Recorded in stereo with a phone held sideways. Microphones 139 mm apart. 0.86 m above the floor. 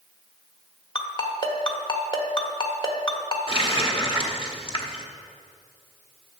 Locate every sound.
0.9 s a ringtone: 40° left (ahead or behind), 1.4 m
3.5 s a running tap: 40° left (ahead or behind), 1.3 m